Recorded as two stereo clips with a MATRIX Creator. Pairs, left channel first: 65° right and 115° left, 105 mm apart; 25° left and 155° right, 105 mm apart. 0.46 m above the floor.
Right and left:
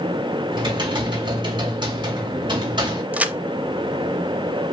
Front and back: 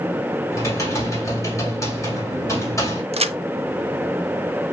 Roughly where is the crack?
Behind.